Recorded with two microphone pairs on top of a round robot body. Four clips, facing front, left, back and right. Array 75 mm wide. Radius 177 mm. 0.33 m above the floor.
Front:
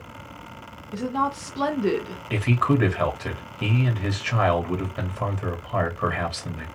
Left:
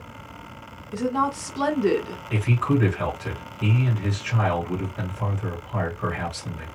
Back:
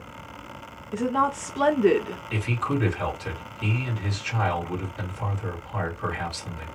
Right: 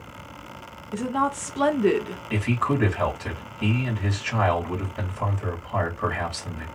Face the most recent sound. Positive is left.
turn(degrees=-15)